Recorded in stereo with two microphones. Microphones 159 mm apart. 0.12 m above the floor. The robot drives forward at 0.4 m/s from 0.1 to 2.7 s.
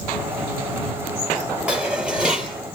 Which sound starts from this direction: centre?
Dishes clattering, at 1.7 s.